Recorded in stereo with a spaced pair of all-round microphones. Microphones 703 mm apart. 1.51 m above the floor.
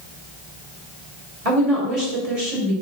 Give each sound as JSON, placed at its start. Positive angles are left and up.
{"t": 1.4, "sound": "a woman speaking", "side_deg": -55, "distance_m": 3.0}